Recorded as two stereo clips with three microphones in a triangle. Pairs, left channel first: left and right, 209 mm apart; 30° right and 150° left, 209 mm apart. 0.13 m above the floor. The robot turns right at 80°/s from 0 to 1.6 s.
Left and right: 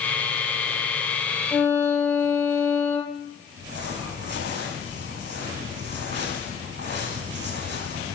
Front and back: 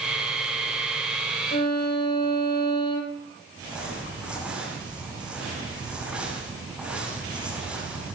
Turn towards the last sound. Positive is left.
turn(degrees=-125)